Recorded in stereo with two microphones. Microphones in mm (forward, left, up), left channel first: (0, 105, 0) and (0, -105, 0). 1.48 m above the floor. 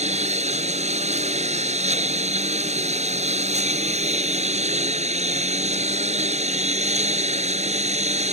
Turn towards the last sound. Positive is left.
turn(degrees=-35)  # may be behind; listen again after turning